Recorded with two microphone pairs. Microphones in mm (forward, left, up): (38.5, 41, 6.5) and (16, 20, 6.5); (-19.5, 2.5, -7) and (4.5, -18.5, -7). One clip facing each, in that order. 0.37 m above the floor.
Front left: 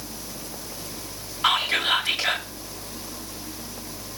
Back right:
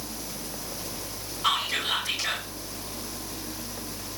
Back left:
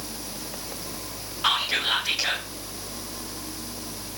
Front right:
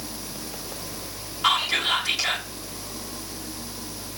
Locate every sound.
1.4 s whispering: 60° left, 2.5 m